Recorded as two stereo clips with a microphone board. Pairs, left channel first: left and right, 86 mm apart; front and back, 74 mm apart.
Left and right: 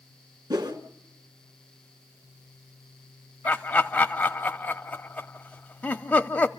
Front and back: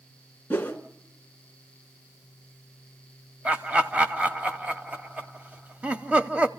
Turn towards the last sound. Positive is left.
turn(degrees=135)